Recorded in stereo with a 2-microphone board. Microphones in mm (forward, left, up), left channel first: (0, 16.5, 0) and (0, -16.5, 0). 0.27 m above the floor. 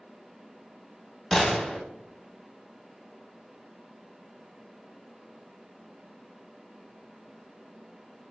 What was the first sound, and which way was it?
A gunshot, 10° left (ahead or behind).